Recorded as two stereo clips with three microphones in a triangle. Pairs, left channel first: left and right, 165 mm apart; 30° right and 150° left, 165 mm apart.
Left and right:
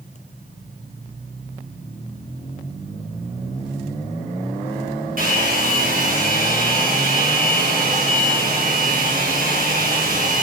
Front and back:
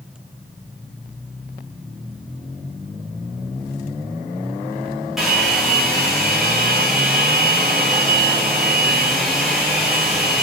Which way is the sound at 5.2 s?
120° right.